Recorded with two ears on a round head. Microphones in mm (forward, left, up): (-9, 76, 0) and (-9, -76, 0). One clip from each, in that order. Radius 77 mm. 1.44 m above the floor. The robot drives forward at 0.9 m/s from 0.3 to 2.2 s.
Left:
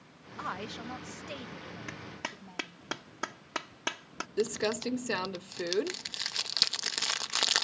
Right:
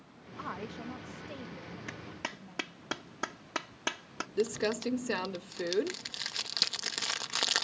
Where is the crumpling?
15° left (ahead or behind).